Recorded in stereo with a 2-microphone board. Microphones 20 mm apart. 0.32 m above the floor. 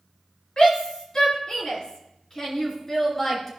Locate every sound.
0.6 s a shout: 45° left (ahead or behind), 3.5 m; by 3.5 s 20° left (ahead or behind), 3.5 m